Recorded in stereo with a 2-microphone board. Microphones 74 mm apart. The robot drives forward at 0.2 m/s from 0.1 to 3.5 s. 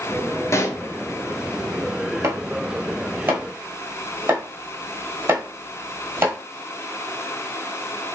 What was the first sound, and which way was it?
A pop, 40° left (ahead or behind).